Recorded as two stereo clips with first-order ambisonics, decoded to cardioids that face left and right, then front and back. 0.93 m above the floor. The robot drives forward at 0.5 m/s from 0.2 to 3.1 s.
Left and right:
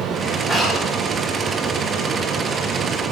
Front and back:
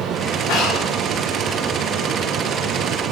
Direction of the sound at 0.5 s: 10° right.